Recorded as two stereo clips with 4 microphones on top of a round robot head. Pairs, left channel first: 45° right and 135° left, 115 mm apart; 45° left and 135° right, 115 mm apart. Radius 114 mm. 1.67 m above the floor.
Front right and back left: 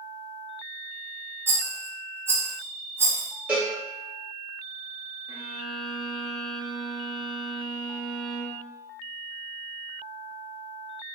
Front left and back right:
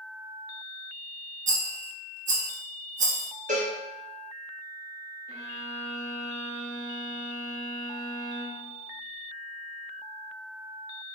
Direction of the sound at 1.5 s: 155° right.